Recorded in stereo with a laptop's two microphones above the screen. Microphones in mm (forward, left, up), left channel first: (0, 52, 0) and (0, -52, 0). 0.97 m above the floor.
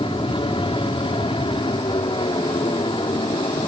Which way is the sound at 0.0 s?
60° left (ahead or behind).